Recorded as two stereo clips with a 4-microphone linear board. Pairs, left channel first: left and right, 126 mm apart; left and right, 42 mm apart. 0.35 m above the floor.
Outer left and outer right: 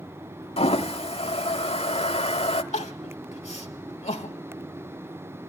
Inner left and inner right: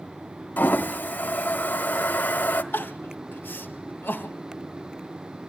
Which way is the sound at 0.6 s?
50° left (ahead or behind).